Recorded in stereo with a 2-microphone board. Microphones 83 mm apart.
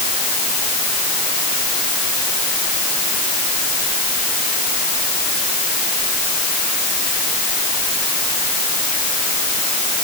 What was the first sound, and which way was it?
Only background noise.